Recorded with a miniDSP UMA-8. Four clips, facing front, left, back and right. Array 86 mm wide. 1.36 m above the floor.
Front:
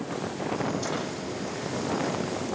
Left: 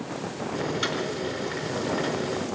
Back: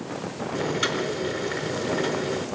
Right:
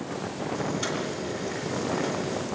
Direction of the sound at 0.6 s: 155° left.